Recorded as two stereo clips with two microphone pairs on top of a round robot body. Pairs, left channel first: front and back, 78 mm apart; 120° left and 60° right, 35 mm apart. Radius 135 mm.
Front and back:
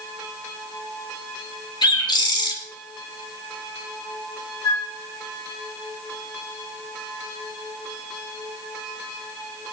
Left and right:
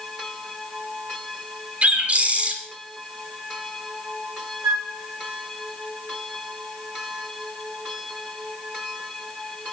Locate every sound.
1.8 s a bird: 10° right, 2.5 m
4.6 s a flute: 55° right, 0.8 m